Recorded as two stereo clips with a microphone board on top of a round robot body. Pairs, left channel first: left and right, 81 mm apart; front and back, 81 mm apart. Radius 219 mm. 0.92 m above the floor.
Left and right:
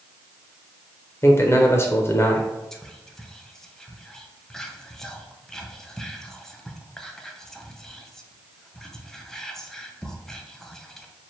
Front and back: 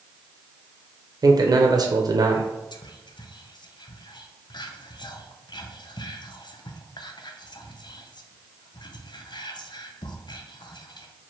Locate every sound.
1.2 s a man speaking: 145° left, 0.7 m
2.7 s whispering: 5° left, 0.8 m